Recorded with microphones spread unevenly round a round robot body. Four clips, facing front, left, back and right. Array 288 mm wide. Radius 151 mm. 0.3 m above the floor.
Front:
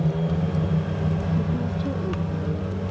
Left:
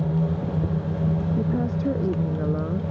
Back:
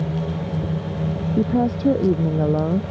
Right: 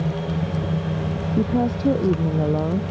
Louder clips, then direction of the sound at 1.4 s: Right 4 dB, back 7 dB; 150° right.